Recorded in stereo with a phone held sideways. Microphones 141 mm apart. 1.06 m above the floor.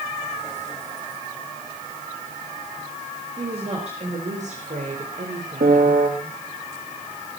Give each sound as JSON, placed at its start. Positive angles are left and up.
{"t": 3.4, "sound": "a woman speaking", "side_deg": -45, "distance_m": 4.5}
{"t": 5.6, "sound": "a piano", "side_deg": -75, "distance_m": 1.8}